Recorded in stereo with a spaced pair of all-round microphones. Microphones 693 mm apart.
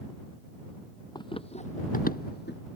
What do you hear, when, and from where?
1.1 s running footsteps: 5° left (ahead or behind); by 2.6 s 15° left (ahead or behind)